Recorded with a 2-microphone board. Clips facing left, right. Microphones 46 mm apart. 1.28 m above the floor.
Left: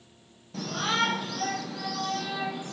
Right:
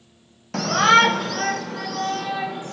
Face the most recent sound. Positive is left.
turn(degrees=-45)  # may be behind; listen again after turning